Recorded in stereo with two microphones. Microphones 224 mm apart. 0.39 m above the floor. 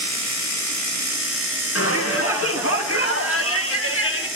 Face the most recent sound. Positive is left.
turn(degrees=65)  # may be behind; listen again after turning